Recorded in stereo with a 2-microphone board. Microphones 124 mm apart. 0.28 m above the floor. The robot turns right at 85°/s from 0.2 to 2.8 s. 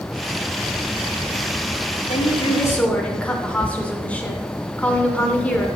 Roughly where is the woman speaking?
Left.